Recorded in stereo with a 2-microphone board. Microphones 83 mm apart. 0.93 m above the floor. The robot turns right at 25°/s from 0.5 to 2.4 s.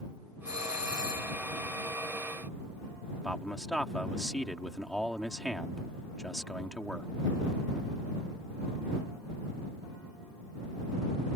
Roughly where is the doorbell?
Right.